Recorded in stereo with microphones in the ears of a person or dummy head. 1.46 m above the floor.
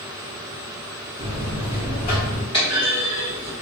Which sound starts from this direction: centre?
A clunk, at 2.5 s.